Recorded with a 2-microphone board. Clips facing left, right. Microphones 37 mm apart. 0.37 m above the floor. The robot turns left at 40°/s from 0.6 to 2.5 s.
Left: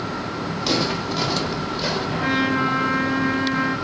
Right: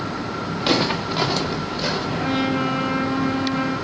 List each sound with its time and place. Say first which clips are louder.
0.6 s footsteps: right 3 dB; 35° right (ahead or behind), 3 m; by 2.1 s 5° left (ahead or behind), 3.5 m
2.2 s a trumpet: left 2 dB; 75° left (ahead or behind), 8.5 m; by 3.7 s 60° left (ahead or behind), 8.5 m